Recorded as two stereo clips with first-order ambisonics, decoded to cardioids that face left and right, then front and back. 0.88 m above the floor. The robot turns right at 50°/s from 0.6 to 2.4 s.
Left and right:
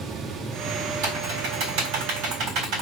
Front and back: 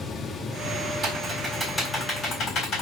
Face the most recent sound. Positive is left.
turn(degrees=-50)